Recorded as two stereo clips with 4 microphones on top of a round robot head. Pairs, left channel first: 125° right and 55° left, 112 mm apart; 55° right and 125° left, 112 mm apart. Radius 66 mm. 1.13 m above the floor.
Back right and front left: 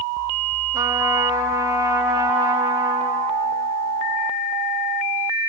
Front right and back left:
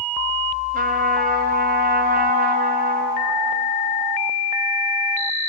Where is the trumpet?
115° left, 1.5 m.